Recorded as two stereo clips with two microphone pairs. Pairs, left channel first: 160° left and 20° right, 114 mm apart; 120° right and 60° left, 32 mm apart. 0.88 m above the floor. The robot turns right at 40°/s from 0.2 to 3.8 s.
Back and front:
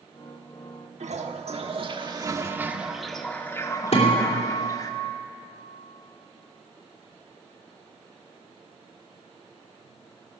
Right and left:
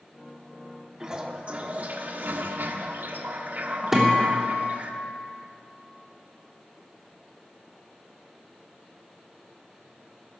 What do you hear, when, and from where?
1.0 s a toilet flushing: 10° right, 1.2 m; by 4.9 s 100° left, 1.2 m
3.9 s a guitar: 140° left, 3 m